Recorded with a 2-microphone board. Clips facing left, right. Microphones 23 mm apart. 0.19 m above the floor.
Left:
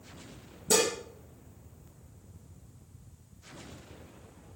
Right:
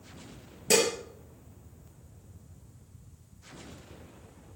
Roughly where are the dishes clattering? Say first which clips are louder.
Right 2 dB; right.